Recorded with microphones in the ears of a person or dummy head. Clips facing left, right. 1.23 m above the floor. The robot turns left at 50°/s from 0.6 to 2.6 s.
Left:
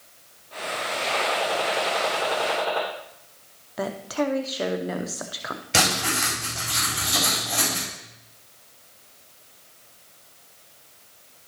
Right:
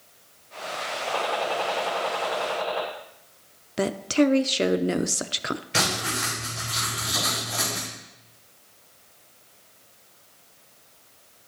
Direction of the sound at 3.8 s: 30° right (ahead or behind).